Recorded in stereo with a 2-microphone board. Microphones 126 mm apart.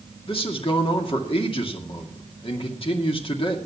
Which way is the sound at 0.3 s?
45° left (ahead or behind).